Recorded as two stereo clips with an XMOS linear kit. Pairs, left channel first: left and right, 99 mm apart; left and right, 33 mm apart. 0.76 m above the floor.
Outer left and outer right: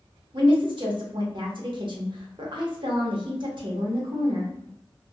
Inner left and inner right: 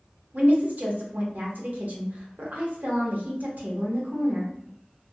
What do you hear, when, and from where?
0.3 s a woman speaking: 55° right (ahead or behind), 0.8 m